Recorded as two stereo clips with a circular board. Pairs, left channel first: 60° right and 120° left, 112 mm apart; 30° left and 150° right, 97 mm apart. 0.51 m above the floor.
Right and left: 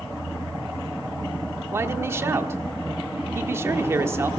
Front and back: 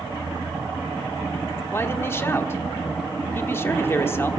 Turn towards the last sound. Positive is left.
turn(degrees=75)